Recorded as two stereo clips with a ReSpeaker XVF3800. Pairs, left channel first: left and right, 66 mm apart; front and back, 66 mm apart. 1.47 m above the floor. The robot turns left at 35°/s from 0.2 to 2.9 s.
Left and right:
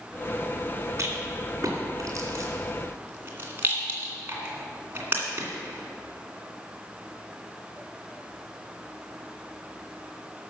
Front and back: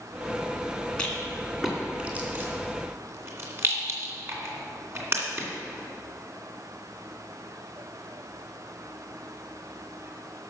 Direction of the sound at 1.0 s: 70° right.